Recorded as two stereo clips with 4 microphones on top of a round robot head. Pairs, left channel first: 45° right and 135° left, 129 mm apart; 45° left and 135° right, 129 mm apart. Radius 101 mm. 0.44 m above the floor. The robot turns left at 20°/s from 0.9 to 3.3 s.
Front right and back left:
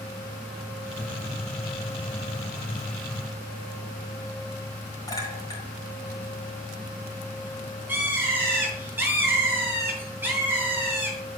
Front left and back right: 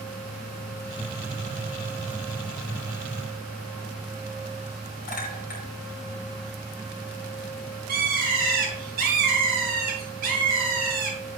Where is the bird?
145° right, 3.5 m.